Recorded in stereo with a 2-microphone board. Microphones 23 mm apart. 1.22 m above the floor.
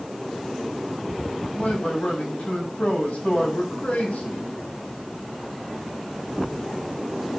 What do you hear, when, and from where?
1.5 s a man speaking: 80° left, 7 m